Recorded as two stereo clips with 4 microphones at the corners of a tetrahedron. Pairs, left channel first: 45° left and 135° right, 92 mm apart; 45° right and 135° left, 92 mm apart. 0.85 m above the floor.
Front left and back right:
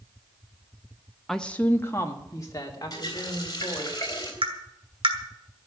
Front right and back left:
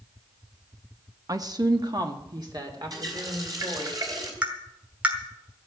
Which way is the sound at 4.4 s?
150° right.